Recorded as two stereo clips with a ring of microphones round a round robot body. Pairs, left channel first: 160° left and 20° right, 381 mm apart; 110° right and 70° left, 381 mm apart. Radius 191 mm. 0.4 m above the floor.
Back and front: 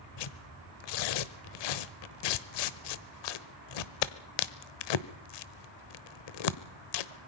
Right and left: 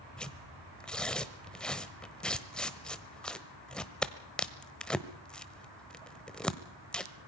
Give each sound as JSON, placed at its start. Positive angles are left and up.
{"t": 0.2, "sound": "tearing paper", "azimuth_deg": 160, "distance_m": 1.1}